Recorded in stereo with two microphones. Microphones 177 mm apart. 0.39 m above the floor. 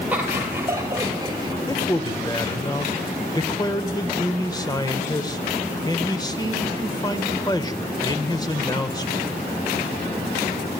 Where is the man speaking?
25° left (ahead or behind), 1.4 m.